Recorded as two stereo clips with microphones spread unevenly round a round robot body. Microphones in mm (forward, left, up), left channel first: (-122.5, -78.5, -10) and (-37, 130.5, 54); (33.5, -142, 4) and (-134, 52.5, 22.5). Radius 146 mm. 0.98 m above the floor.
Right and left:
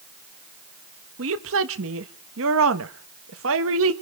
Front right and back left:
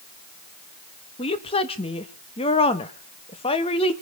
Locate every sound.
1.2 s a woman speaking: 20° left, 1.2 m